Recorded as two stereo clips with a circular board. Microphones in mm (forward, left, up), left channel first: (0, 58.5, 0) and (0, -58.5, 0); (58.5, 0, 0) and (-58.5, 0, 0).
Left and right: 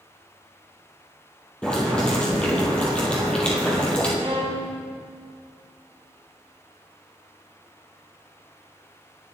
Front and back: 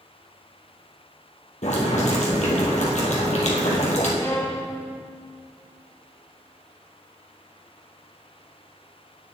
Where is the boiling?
10° left, 2 m.